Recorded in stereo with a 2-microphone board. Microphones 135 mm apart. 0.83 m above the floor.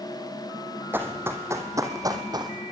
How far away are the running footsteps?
About 2.5 m.